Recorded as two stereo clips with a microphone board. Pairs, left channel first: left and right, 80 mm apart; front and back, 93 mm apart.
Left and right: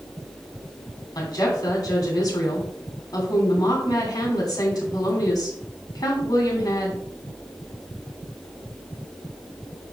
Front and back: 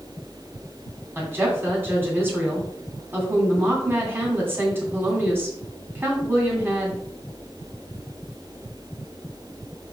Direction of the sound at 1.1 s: 115° left.